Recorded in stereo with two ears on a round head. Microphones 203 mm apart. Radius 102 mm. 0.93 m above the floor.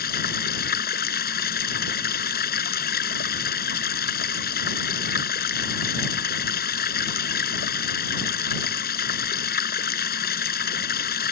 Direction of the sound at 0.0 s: 45° left (ahead or behind).